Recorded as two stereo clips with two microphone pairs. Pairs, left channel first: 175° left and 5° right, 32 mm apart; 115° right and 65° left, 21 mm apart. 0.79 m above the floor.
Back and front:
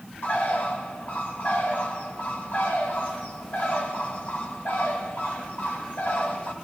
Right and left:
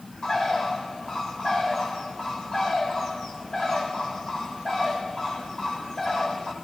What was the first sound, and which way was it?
A bird, 175° right.